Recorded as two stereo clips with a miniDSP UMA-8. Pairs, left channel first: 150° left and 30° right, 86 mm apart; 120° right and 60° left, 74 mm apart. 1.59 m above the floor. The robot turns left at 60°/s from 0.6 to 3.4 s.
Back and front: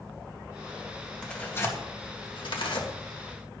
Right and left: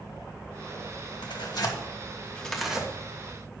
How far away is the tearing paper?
About 1.9 m.